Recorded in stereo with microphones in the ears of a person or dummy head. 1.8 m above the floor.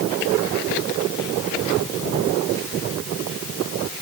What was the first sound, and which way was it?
Only background noise.